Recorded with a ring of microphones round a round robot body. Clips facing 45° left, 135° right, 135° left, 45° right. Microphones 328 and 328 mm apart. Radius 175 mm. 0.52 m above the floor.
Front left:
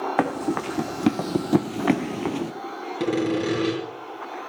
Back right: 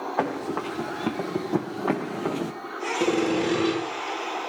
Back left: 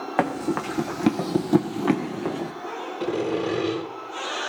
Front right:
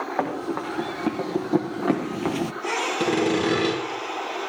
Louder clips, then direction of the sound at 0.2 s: Front left 3 dB, back left 4 dB; 95° left.